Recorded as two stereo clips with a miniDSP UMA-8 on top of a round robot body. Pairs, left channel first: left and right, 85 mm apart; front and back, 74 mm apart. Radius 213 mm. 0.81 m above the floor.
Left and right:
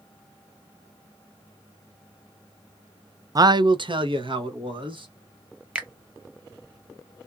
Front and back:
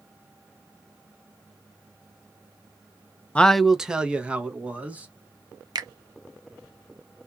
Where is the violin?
I don't hear a violin.